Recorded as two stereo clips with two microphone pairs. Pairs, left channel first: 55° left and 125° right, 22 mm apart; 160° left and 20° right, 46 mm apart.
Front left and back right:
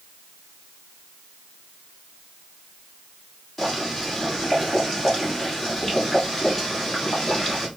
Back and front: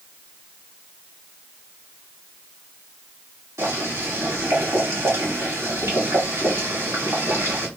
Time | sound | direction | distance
3.6 | boiling | 15° right | 2 m